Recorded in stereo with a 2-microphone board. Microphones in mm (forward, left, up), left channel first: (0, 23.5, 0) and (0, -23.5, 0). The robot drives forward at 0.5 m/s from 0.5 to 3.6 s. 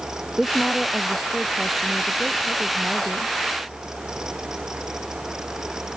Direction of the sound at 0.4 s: Centre (ahead or behind).